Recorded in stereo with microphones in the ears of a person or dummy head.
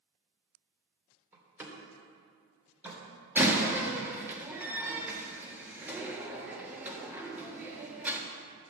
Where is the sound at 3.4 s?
10° right (ahead or behind), 1.5 m.